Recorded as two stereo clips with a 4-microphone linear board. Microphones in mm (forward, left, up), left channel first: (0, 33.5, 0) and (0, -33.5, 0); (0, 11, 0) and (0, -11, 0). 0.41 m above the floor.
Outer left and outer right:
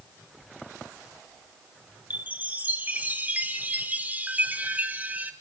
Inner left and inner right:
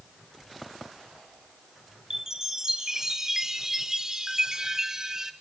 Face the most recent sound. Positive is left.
turn(degrees=-25)  # may be behind; listen again after turning